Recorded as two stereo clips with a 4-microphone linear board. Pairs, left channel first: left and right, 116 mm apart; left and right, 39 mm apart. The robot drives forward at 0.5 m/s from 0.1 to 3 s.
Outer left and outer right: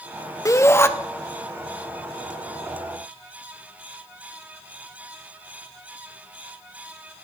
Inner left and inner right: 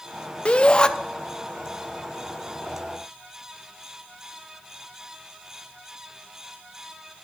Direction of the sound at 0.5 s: 30° left (ahead or behind).